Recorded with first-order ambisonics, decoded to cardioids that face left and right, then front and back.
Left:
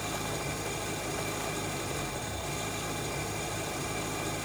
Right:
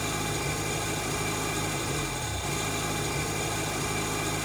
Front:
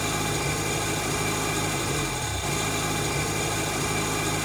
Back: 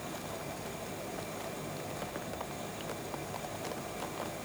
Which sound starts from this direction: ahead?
An engine running, at 0.0 s.